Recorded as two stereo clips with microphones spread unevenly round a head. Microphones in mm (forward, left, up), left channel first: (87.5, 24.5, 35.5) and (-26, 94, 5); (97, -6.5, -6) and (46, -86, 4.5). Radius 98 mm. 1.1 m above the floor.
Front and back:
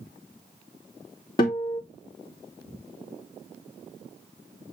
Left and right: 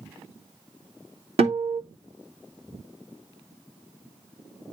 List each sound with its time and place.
1.4 s a guitar: 100° right, 2.5 m